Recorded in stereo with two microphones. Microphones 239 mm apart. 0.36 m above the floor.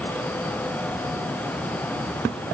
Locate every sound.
Only background noise.